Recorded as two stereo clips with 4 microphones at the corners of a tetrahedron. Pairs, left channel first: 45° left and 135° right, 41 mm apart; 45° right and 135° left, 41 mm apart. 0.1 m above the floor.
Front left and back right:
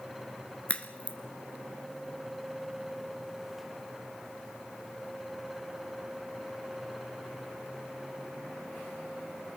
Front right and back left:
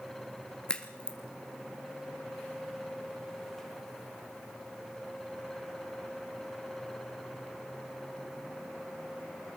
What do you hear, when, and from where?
0.7 s a crack: 10° left, 1.6 m